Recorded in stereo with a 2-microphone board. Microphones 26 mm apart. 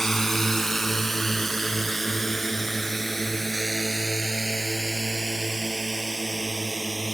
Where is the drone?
20° left (ahead or behind); by 7.2 s 10° left (ahead or behind).